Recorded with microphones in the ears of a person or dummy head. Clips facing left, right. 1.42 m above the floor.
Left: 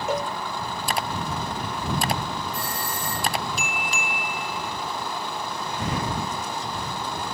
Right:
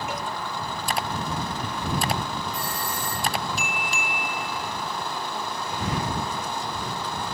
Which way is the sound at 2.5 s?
60° left (ahead or behind).